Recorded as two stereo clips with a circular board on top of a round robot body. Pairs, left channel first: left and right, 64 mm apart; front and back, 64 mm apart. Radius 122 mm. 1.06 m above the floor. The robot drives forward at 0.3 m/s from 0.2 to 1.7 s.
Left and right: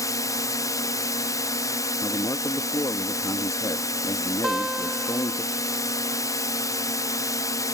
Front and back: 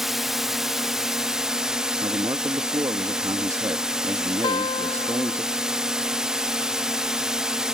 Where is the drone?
95° left; by 7.8 s 100° left.